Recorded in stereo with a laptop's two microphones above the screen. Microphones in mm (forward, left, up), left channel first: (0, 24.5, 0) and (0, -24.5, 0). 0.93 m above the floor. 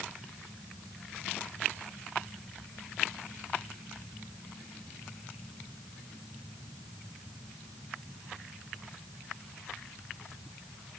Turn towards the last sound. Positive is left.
No sound to turn to.